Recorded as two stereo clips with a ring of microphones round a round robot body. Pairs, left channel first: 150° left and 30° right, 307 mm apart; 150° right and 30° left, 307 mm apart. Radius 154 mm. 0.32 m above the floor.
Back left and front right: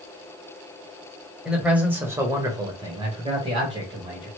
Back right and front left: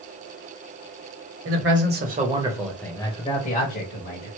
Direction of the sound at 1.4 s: 55° left.